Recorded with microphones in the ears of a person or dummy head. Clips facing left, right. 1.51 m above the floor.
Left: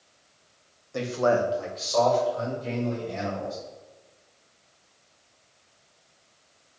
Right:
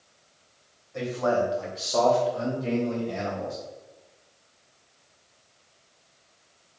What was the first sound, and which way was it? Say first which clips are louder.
A man speaking: left 2 dB; 65° left (ahead or behind).